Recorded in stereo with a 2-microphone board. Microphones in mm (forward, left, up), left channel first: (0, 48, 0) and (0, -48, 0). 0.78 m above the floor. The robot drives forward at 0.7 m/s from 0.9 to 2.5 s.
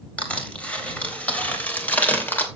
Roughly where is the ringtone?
I don't hear a ringtone.